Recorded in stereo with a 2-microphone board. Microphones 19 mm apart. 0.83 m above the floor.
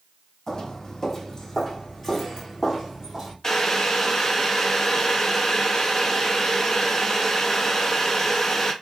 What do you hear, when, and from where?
0.5 s footsteps: 30° left (ahead or behind), 2.5 m; by 3.3 s 10° right (ahead or behind), 2 m
3.4 s boiling: 25° left (ahead or behind), 0.9 m